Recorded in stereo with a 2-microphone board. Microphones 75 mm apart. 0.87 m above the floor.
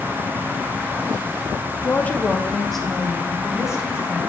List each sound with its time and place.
1.8 s a woman speaking: 30° left (ahead or behind), 0.7 m; by 4.2 s 10° right (ahead or behind), 2 m